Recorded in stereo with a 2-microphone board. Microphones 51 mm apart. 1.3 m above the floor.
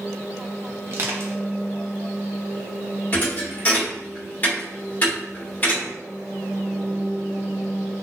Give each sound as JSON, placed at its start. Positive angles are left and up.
{"t": 0.9, "sound": "crushing", "side_deg": -45, "distance_m": 0.6}
{"t": 3.1, "sound": "a thud", "side_deg": 30, "distance_m": 1.1}